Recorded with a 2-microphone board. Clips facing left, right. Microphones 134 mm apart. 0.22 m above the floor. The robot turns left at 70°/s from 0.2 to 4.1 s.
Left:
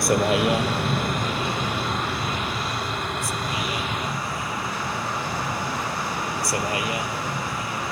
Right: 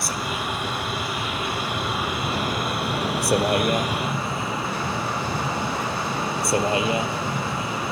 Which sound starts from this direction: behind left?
A vehicle, at 0.0 s.